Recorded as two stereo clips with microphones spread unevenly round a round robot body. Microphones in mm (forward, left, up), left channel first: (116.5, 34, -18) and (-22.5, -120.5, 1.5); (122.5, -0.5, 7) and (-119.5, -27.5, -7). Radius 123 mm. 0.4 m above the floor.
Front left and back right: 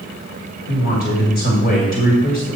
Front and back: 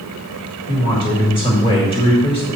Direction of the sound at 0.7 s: 75° left.